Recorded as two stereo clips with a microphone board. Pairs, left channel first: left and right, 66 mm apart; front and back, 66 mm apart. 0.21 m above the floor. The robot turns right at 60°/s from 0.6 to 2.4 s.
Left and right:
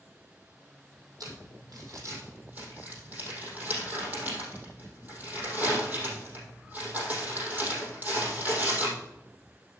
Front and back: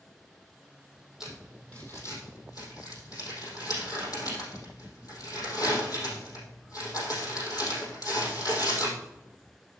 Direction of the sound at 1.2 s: 100° right.